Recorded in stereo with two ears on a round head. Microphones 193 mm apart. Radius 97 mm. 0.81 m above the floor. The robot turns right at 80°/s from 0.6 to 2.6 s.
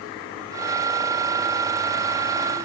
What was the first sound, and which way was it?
Only background noise.